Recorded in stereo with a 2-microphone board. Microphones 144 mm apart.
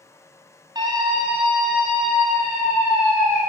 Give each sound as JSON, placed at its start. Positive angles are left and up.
{"t": 0.8, "sound": "a scream", "side_deg": -30, "distance_m": 1.1}